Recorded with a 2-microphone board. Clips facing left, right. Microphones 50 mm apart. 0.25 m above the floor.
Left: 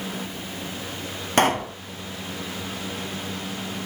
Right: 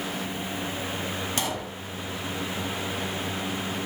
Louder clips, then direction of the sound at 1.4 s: Left 10 dB; 55° left (ahead or behind).